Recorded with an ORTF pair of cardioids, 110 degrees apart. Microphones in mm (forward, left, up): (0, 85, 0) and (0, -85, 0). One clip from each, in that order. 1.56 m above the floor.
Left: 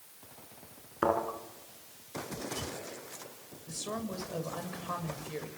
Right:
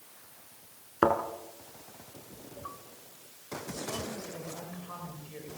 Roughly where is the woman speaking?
Ahead left.